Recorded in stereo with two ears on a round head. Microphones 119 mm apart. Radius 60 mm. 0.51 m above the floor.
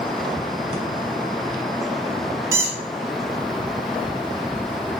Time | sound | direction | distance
0.7 | breathing | 40° right (ahead or behind) | 1.6 m
2.5 | a squeak | 25° right (ahead or behind) | 1.0 m